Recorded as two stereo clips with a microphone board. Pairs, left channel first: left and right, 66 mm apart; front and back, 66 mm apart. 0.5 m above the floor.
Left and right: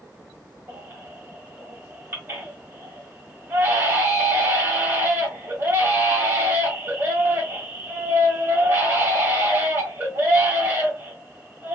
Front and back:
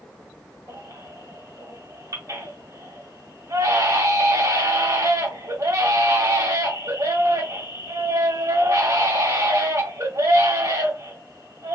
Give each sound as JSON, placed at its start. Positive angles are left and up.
{"t": 0.7, "sound": "a baby crying", "azimuth_deg": -145, "distance_m": 1.7}